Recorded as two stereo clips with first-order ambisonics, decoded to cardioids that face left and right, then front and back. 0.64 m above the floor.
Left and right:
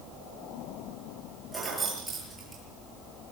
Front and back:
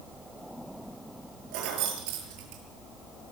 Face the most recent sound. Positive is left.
turn(degrees=-170)